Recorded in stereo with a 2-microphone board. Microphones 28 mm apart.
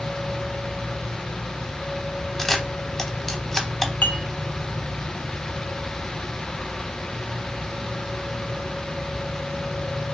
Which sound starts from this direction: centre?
A camera shutter, at 2.4 s.